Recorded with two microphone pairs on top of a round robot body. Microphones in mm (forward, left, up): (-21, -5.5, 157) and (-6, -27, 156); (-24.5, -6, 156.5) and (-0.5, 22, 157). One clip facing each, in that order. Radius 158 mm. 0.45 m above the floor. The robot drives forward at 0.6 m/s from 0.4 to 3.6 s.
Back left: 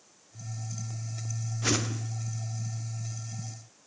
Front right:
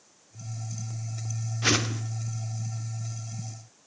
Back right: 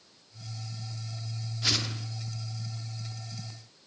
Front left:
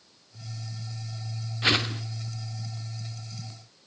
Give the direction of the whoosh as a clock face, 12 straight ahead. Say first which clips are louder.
Front right 4 dB, front left 7 dB; 12 o'clock.